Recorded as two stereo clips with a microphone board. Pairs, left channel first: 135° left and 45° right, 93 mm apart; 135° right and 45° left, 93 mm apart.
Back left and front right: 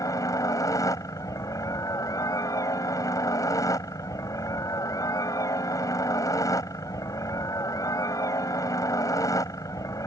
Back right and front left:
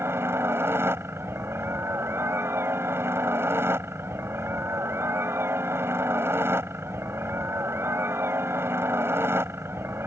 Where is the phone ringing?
I don't hear a phone ringing.